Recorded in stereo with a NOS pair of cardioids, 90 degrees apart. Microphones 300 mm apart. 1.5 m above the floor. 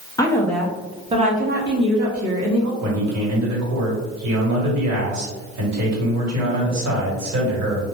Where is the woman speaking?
15° left, 0.9 m; by 2.7 s 70° right, 1.1 m.